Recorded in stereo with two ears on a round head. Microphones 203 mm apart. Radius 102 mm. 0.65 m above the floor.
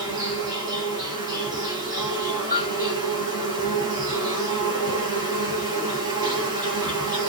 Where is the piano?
30° right (ahead or behind), 1.1 m.